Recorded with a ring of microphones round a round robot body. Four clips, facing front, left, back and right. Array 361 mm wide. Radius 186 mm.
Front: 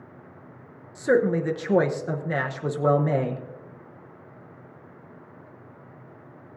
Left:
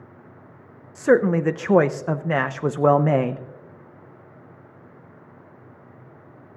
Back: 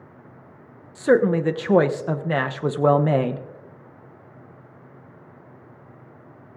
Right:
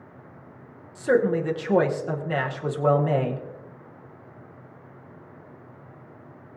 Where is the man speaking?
120° left, 0.8 m.